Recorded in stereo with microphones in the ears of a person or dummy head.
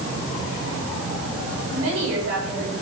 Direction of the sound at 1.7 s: 85° right.